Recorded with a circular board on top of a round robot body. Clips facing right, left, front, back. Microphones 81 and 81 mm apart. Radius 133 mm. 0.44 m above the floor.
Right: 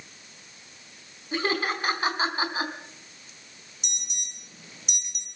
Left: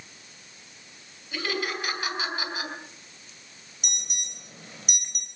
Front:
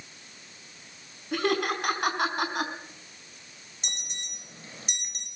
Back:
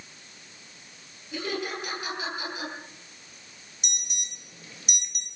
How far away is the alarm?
About 3.5 m.